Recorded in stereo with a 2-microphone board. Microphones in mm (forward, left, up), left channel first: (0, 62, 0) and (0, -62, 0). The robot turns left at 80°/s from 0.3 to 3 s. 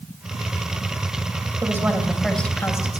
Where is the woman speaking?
135° right, 1.5 m; by 3.0 s 115° left, 1.5 m.